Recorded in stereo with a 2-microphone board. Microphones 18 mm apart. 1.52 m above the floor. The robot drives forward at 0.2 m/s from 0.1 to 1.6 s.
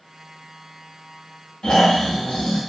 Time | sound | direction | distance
1.6 | snoring | 50° left (ahead or behind) | 0.7 m